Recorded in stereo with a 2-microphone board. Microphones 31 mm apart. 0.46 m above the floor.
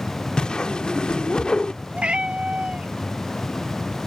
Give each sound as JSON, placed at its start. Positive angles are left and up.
{"t": 0.4, "sound": "a whoosh", "side_deg": 30}
{"t": 1.9, "sound": "a cat meowing", "side_deg": -40}